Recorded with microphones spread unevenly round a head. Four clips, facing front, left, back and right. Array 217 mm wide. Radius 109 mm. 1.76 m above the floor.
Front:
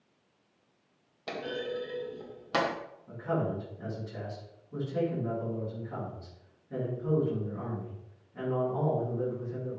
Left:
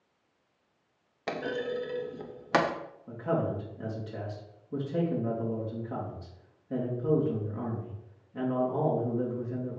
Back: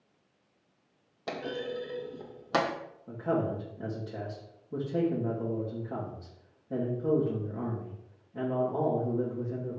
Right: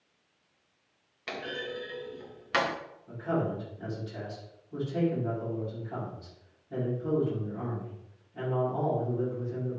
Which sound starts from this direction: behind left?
A man speaking, at 3.1 s.